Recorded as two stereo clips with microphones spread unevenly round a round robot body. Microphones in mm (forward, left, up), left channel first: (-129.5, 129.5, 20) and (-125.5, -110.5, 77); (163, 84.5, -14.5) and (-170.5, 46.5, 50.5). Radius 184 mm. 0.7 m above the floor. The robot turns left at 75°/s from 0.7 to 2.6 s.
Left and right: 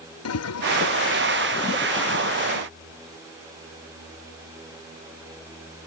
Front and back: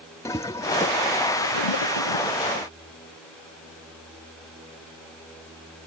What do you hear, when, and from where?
0.2 s a toilet flushing: 85° left; by 2.7 s 55° right